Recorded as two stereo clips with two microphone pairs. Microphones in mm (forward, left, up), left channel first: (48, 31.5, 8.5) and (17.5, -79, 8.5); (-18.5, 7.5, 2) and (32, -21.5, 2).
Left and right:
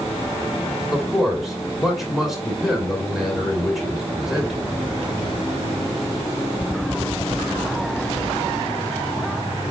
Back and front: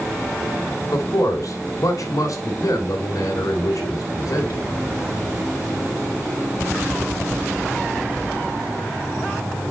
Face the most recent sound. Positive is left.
turn(degrees=165)